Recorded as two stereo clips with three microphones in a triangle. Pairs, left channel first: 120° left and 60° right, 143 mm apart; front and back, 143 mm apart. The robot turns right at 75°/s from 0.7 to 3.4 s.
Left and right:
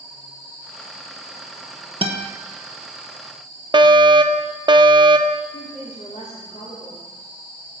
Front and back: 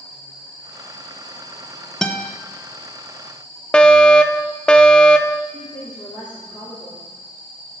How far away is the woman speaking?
About 3.5 m.